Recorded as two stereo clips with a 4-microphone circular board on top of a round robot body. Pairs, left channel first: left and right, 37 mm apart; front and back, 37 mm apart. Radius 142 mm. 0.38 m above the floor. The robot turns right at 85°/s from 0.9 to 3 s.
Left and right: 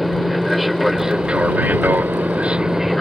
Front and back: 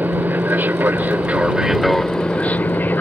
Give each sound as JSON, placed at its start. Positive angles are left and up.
{"t": 0.0, "sound": "an aircraft", "azimuth_deg": -175}